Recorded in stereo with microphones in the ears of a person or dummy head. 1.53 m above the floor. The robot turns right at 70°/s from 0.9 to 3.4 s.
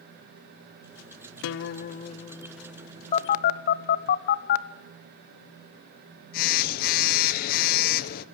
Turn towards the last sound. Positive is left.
turn(degrees=55)  # may be behind; listen again after turning